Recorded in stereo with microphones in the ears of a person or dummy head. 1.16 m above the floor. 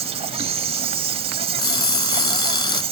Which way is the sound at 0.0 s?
30° right (ahead or behind).